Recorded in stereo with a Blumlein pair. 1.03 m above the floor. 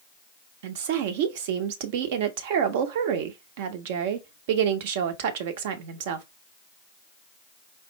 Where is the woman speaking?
50° right, 0.7 m.